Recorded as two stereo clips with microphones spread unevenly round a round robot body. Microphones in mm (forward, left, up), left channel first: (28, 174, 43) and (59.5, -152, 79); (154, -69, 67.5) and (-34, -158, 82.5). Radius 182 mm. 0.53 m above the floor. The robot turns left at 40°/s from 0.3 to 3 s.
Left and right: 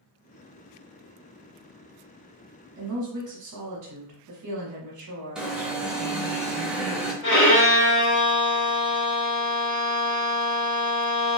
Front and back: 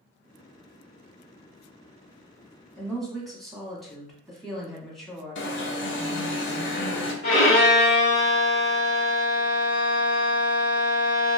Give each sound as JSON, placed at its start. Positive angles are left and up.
{"t": 2.8, "sound": "a woman speaking", "azimuth_deg": -50, "distance_m": 1.2}
{"t": 5.3, "sound": "an alarm", "azimuth_deg": 5, "distance_m": 0.8}
{"t": 7.2, "sound": "a violin", "azimuth_deg": 40, "distance_m": 1.6}